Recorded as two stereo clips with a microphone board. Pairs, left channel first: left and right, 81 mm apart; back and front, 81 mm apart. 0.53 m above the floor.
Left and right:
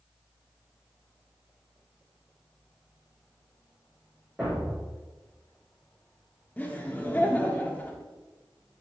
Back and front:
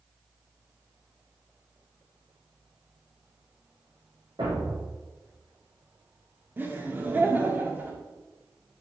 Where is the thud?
10° right, 3.5 m.